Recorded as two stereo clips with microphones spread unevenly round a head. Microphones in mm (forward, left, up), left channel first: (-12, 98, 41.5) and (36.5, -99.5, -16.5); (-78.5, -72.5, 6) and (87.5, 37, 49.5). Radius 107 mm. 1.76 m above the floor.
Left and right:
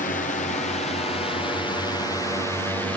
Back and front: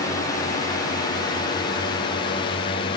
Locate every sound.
0.0 s a drone: 160° left; by 3.0 s 155° right